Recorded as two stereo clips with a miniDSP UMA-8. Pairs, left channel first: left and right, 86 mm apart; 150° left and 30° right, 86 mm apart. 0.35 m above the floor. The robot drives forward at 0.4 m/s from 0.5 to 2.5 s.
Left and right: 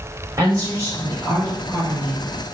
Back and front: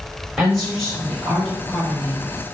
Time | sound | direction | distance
0.4 | a woman speaking | 120° right | 1.9 m